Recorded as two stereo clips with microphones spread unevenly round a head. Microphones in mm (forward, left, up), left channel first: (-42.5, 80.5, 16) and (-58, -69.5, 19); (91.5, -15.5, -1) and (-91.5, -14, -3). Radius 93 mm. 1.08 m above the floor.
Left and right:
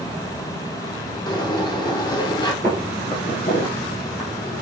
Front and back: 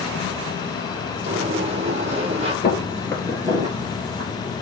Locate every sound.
1.3 s a sliding door: 135° left, 1.0 m
2.6 s footsteps: 5° left, 1.2 m; by 4.3 s 130° left, 2 m